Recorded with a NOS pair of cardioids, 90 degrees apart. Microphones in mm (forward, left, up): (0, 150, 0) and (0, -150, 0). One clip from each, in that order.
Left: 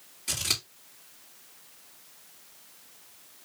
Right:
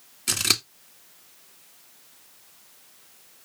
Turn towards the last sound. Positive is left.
turn(degrees=-60)